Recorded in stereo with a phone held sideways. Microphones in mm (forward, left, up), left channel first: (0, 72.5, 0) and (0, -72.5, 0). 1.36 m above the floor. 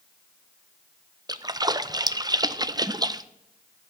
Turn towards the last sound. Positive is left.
turn(degrees=-25)  # may be behind; listen again after turning